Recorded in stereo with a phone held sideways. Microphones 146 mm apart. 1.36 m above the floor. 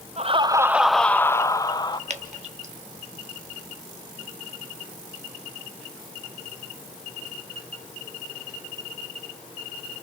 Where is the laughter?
45° right (ahead or behind), 0.6 m; by 2.0 s 30° left (ahead or behind), 1.4 m.